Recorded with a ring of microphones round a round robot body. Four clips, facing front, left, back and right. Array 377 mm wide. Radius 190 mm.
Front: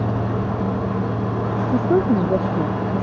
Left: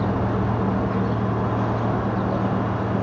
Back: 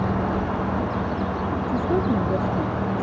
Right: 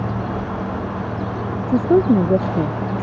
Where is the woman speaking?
70° right.